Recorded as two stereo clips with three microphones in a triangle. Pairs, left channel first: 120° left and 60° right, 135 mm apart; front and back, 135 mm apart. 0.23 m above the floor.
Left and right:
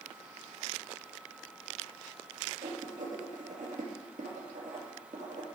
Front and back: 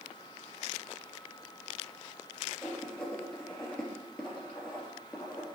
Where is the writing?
80° right, 3.5 m.